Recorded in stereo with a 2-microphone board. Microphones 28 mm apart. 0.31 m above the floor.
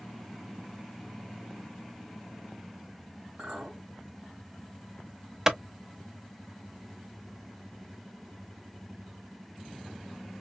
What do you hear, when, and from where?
3.4 s a clink: 45° right (ahead or behind), 1.9 m
5.5 s a clap: 20° right (ahead or behind), 0.7 m